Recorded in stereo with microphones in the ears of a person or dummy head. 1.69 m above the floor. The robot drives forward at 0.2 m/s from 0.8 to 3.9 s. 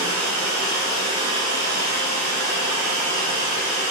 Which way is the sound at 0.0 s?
50° right (ahead or behind).